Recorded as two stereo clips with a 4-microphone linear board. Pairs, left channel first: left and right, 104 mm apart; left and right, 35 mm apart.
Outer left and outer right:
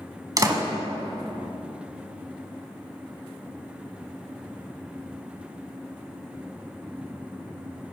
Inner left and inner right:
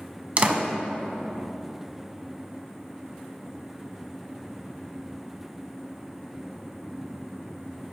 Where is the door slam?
35° right (ahead or behind), 0.9 m.